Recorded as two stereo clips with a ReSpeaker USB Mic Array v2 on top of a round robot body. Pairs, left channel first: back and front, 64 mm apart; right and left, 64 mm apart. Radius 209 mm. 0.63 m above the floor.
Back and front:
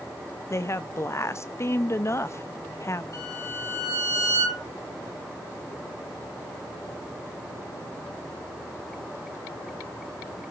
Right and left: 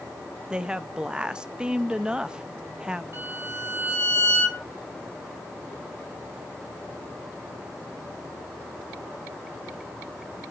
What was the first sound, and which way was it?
A woman speaking, 160° left.